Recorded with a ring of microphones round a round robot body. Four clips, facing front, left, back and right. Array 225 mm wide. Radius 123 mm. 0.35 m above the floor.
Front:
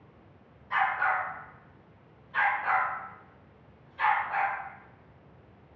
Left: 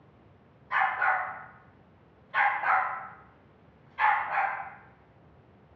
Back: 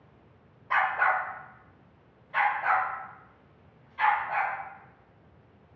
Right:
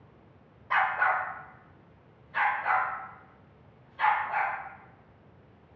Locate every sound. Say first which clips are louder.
0.7 s a dog barking: even, back 2 dB; 140° right, 0.5 m; by 4.5 s 125° left, 1.8 m